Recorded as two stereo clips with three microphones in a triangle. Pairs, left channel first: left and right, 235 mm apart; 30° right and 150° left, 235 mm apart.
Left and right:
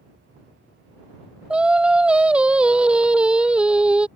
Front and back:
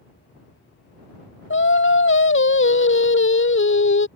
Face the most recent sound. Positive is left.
turn(degrees=-5)